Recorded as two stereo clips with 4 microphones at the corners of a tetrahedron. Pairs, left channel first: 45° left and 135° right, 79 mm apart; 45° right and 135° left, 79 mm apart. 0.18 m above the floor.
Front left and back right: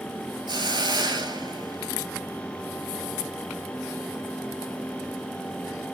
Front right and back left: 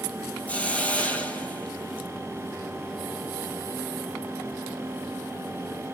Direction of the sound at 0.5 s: 120° right.